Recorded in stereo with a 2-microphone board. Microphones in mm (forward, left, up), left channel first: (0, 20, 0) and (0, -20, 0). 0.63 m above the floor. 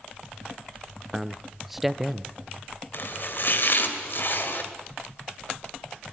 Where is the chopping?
55° left (ahead or behind), 2.5 m.